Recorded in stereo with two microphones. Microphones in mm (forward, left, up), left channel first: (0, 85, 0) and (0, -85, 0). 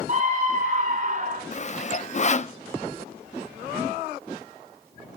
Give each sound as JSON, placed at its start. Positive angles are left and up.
{"t": 0.1, "sound": "a scream", "side_deg": -50, "distance_m": 5.5}
{"t": 1.5, "sound": "sawing", "side_deg": 45, "distance_m": 0.5}